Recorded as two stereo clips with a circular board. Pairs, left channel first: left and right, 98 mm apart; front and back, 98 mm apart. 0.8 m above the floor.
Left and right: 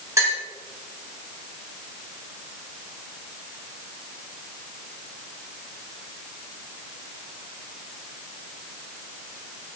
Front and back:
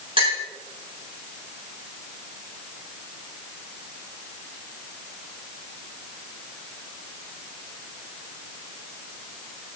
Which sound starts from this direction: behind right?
A clink, at 0.2 s.